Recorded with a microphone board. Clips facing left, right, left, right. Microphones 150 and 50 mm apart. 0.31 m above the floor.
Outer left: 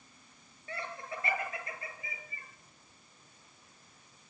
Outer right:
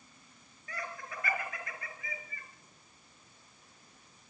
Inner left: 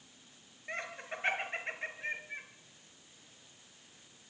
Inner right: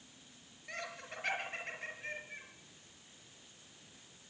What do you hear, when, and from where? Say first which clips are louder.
0.7 s laughter: outer left 2 dB, inner left 4 dB; 25° left (ahead or behind), 5.5 m